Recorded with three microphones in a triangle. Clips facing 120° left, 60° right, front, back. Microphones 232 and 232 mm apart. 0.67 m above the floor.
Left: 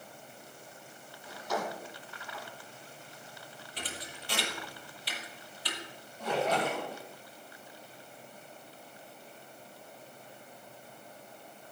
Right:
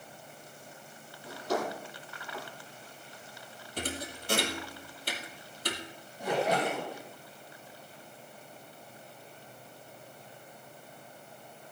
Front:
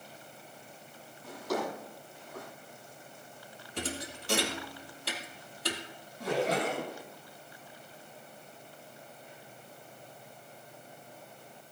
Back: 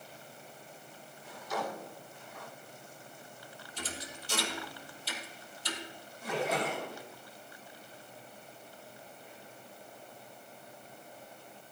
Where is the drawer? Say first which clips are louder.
Right 4 dB, front 5 dB; 5° right, 9.5 m.